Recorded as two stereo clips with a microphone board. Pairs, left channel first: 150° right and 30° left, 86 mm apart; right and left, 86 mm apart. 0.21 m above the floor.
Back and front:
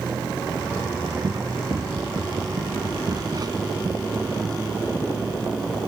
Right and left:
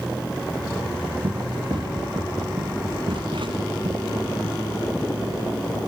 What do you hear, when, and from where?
1.2 s running footsteps: 65° left; by 4.6 s 75° left